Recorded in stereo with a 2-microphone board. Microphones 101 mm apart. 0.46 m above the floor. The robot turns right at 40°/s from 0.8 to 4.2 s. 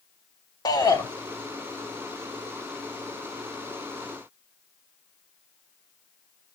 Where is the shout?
40° left (ahead or behind), 3 m; by 1.1 s 35° left (ahead or behind), 3 m.